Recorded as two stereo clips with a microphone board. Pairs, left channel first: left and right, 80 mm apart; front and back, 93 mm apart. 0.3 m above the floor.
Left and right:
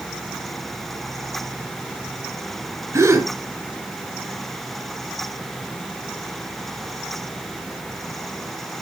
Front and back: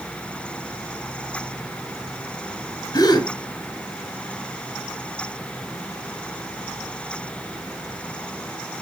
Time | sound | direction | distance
2.9 | a gasp | 40° right | 2 m